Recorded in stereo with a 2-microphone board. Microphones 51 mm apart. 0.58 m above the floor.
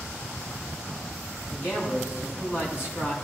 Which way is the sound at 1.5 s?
50° left (ahead or behind).